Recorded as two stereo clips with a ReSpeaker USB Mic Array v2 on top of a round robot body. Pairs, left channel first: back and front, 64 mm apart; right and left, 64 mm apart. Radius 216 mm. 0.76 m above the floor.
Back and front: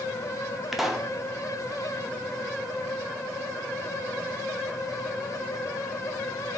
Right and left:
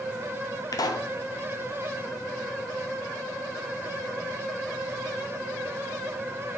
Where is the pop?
85° right, 1.3 m.